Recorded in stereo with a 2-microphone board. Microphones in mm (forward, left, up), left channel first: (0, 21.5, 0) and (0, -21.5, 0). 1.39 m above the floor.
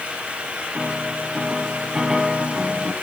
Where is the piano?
15° right (ahead or behind), 1.9 m.